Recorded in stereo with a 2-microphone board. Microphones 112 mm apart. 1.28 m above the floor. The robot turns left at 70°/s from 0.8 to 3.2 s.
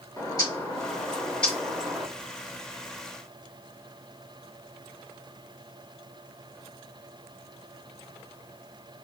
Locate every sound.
0.2 s a bird: 60° left, 1.2 m; by 2.1 s 30° right, 1.2 m